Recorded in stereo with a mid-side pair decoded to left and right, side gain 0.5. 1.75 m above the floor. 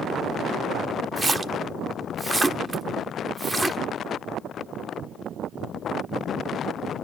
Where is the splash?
10° right, 1.1 m.